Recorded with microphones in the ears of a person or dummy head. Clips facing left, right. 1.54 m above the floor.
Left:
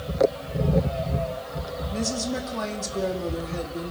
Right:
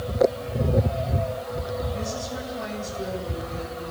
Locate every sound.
1.9 s a woman speaking: 85° left, 3.5 m